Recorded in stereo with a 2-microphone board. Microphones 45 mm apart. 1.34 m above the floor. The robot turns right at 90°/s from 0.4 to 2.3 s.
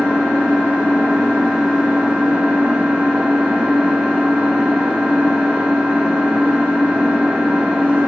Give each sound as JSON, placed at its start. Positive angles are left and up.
{"t": 0.0, "sound": "an engine running", "azimuth_deg": 60, "distance_m": 1.2}